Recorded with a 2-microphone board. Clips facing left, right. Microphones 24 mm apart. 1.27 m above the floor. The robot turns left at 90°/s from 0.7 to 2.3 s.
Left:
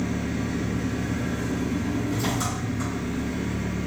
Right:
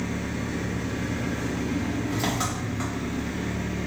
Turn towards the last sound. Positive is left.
turn(degrees=-140)